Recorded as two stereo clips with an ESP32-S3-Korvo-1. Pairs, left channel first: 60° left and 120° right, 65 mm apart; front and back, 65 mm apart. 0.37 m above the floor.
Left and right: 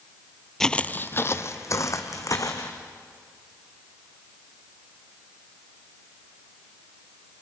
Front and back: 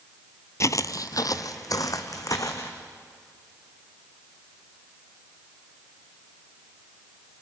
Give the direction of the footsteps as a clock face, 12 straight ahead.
1 o'clock.